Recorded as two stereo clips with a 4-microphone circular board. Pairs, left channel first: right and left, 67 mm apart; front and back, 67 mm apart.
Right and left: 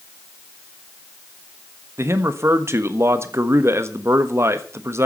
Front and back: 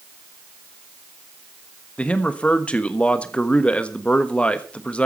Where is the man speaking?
65° left, 1.3 m.